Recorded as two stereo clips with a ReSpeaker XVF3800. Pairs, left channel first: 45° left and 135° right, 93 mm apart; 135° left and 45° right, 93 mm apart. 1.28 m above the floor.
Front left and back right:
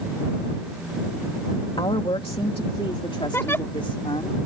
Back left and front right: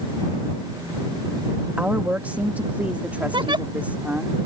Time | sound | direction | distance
1.8 | a woman speaking | 25° left | ?
3.3 | a giggle | 20° right | ?